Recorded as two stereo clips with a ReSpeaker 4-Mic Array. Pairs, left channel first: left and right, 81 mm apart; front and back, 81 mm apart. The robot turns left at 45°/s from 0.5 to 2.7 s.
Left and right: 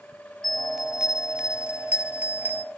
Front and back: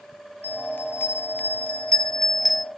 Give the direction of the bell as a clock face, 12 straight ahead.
12 o'clock.